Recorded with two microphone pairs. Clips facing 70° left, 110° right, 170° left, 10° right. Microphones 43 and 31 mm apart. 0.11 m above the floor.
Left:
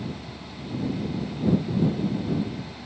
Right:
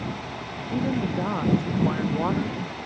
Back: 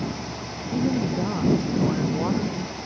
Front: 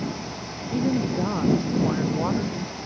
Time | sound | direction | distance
0.7 | a woman speaking | 90° right | ?